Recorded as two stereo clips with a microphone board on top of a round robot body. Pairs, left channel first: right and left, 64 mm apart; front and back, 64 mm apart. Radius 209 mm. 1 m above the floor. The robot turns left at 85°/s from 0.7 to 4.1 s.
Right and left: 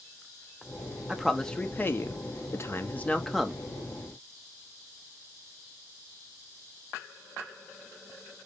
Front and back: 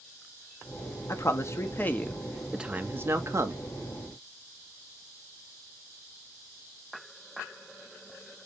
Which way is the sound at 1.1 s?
20° left.